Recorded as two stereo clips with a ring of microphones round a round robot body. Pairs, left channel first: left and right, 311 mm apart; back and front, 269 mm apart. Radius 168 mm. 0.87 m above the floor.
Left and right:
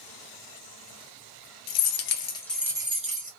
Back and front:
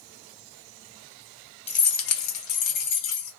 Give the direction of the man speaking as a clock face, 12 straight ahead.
No man speaking in this recording.